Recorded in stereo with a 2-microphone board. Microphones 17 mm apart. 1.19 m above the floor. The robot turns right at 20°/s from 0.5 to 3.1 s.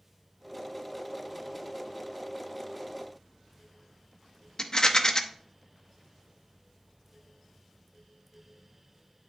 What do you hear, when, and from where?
4.6 s a rattle: 35° left (ahead or behind), 0.7 m